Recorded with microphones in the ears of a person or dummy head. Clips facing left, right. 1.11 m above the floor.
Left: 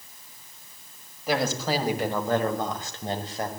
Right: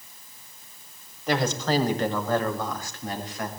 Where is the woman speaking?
Centre (ahead or behind), 6 m; by 3.5 s 30° left (ahead or behind), 5.5 m.